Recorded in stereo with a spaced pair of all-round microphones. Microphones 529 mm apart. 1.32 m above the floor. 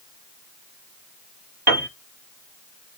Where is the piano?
45° right (ahead or behind), 1.4 m.